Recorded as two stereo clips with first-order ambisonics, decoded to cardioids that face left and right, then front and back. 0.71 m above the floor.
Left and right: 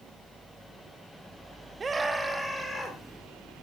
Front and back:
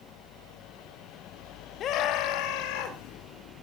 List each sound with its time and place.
1.8 s a scream: 25° right, 0.8 m; by 3.0 s 10° left, 2.5 m